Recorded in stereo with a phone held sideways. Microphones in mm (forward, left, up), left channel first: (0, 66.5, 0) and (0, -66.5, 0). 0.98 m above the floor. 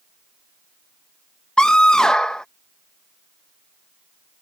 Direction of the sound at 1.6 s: 5° left (ahead or behind).